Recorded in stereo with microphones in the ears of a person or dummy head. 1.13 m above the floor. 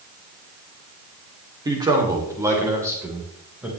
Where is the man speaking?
10° right (ahead or behind), 3 m; by 3.7 s centre (ahead or behind), 5 m.